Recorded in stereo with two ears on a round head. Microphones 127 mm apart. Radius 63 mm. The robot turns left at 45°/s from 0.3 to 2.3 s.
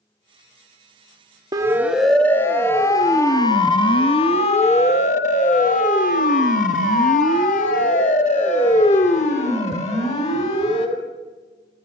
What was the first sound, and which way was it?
A siren, 25° right (ahead or behind).